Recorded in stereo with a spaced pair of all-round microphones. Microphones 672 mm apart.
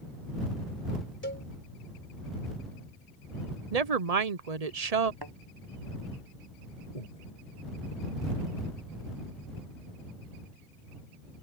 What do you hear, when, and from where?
1.2 s a cowbell: 15° left (ahead or behind)
3.7 s a woman speaking: 65° right (ahead or behind)
5.2 s a thud: 35° right (ahead or behind)
7.0 s breathing: 80° left